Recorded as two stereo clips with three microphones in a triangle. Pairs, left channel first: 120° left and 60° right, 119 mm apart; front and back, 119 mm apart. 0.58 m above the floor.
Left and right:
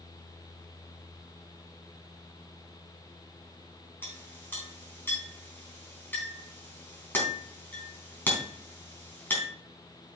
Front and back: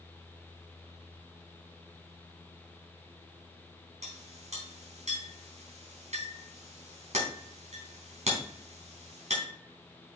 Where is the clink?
165° right, 3.5 m.